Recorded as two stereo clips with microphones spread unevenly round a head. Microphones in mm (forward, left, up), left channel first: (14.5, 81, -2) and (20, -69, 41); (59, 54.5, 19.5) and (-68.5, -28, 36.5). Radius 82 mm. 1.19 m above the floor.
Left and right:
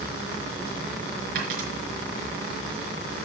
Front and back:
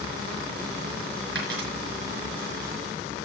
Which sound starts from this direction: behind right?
A dropped coin, at 1.4 s.